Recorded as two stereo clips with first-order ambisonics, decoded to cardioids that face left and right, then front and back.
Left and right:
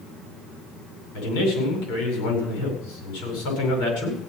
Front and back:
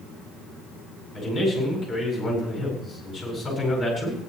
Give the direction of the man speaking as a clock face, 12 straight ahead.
9 o'clock.